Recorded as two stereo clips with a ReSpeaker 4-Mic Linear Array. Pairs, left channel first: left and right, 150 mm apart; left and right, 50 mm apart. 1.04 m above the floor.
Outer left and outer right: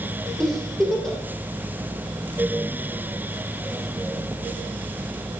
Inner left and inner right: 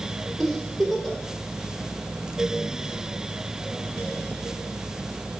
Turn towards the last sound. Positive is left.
turn(degrees=5)  # may be behind; listen again after turning